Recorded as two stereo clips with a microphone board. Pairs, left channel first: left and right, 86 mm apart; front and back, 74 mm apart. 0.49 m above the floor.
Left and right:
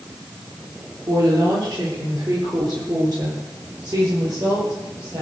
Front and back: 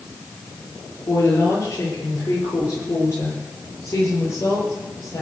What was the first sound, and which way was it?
A woman speaking, 50° right.